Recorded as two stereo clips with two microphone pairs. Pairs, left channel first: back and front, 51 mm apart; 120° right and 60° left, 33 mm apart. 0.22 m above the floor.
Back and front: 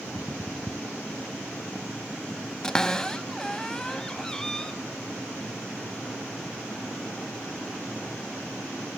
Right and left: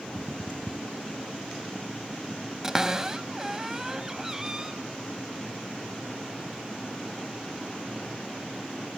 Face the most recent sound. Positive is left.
turn(degrees=115)